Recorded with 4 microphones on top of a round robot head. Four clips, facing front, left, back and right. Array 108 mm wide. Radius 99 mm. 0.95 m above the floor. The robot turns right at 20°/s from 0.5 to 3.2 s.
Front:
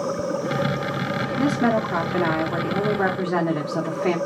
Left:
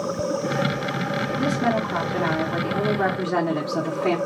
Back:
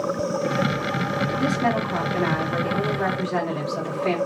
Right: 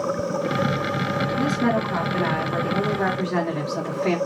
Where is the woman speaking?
10° right, 2.5 m; by 4.2 s 30° left, 2.5 m.